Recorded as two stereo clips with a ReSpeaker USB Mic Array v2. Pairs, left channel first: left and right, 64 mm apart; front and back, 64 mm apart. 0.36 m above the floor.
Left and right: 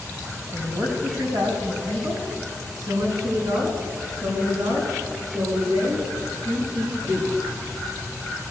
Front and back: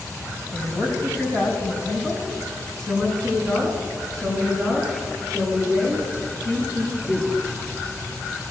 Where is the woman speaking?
65° right, 3 m; by 7.3 s 90° right, 7.5 m.